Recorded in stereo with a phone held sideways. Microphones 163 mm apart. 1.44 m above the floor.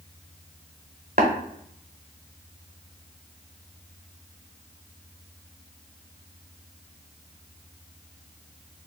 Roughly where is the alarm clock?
I don't hear an alarm clock.